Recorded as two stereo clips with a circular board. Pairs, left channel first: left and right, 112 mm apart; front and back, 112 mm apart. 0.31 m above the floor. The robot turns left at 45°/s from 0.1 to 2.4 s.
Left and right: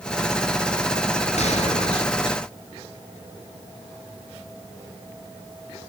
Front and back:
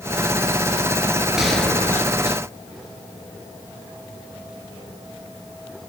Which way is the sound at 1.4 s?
95° left.